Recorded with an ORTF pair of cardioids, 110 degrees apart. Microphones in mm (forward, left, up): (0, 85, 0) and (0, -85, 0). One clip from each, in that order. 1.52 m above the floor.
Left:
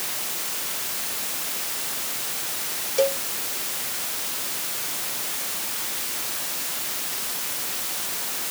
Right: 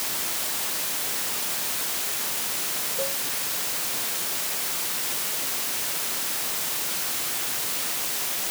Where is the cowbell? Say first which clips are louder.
Left 11 dB; 70° left.